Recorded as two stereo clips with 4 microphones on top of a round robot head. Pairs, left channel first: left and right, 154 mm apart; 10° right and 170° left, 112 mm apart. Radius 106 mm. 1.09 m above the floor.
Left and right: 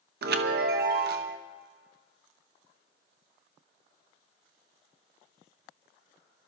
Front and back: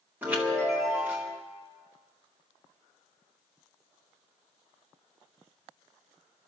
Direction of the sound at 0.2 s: 110° right.